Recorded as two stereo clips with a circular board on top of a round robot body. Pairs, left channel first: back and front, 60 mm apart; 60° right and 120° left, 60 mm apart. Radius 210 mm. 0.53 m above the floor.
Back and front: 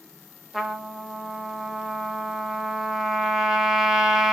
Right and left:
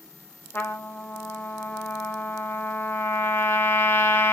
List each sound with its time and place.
0.5 s a trumpet: 85° right, 0.7 m